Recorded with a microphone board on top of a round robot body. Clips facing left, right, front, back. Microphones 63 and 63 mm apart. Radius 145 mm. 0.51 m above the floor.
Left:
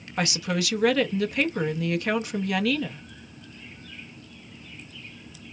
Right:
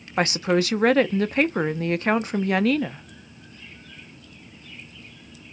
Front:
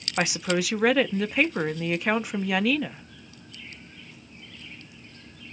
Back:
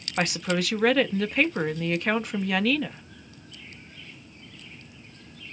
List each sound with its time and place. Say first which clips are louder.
0.2 s a woman speaking: right 6 dB, front 1 dB; 80° right, 1.0 m